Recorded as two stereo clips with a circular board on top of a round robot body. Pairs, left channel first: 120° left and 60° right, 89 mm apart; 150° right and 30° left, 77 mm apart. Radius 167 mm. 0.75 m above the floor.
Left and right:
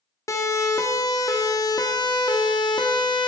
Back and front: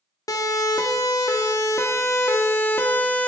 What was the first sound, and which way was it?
A siren, 175° left.